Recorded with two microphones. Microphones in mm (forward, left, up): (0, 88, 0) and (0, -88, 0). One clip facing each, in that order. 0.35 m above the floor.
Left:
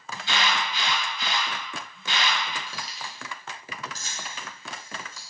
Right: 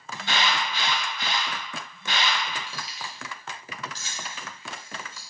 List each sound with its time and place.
0.1 s an alarm: 55° right (ahead or behind), 1.4 m
2.7 s keys jangling: 40° left (ahead or behind), 1.0 m